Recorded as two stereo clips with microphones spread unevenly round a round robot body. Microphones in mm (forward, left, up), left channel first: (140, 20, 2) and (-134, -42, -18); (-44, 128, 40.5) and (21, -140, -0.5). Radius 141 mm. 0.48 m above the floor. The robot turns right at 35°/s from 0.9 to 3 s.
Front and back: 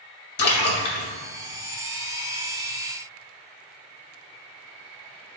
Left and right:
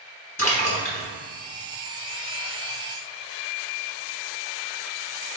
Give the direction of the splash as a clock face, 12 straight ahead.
11 o'clock.